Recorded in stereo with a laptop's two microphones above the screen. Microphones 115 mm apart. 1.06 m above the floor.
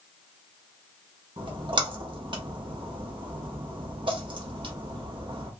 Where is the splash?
45° right (ahead or behind), 0.9 m.